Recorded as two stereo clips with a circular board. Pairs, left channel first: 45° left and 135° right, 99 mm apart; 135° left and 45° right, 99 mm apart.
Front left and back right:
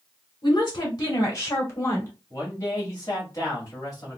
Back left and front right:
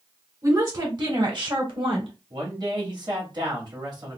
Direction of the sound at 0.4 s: 5° left.